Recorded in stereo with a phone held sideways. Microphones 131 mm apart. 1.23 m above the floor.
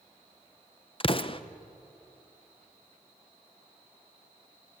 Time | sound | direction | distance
1.0 | an explosion | 40° left (ahead or behind) | 0.7 m